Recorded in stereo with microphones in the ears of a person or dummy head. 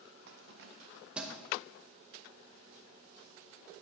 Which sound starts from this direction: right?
Keys jangling, at 0.3 s.